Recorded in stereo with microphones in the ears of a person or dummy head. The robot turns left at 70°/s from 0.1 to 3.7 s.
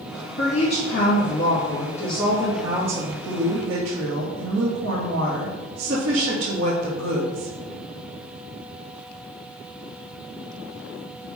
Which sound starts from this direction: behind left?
A woman speaking, at 0.4 s.